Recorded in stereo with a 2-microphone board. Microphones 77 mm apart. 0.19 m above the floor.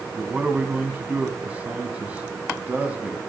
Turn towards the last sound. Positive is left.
turn(degrees=-20)  # may be behind; listen again after turning